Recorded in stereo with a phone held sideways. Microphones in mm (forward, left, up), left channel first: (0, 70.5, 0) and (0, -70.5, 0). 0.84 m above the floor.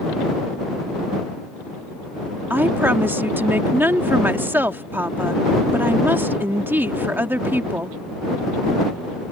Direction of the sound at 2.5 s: 15° right (ahead or behind).